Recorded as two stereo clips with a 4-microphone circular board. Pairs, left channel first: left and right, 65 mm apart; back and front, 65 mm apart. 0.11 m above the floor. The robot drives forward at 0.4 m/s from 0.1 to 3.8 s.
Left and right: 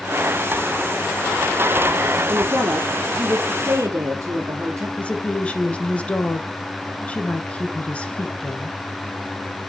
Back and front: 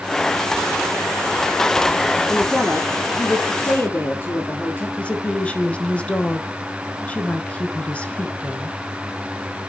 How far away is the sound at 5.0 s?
About 1.1 m.